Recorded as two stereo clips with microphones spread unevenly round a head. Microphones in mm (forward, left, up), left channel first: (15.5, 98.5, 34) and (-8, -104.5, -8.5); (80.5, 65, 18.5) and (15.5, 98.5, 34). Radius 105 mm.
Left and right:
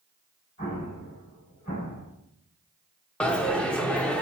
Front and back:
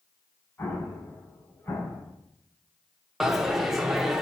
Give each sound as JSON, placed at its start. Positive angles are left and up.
{"t": 0.6, "sound": "an explosion", "azimuth_deg": 25, "distance_m": 5.0}
{"t": 3.2, "sound": "a dropped coin", "azimuth_deg": 120, "distance_m": 0.5}